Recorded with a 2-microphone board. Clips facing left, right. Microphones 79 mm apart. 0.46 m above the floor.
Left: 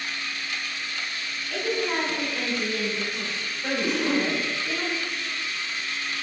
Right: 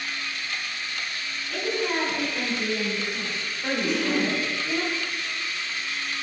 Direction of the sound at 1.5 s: 10° right (ahead or behind).